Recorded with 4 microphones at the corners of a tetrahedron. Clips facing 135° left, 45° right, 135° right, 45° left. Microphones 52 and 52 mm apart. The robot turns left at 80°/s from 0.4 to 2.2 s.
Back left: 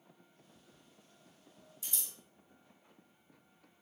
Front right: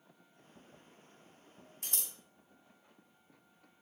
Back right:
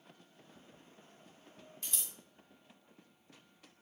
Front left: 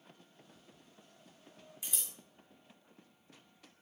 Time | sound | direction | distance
1.8 | scissors | 30° right | 0.5 m